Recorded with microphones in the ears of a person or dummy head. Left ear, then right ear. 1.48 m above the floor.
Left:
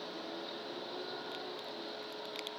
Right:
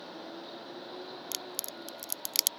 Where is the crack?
85° right.